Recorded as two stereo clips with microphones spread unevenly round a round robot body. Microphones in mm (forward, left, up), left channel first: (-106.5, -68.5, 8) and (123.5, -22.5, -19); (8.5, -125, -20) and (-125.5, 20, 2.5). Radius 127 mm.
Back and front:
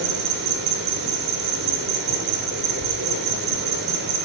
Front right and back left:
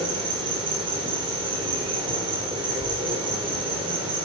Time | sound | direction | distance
0.0 | an insect | 65° left | 1.8 m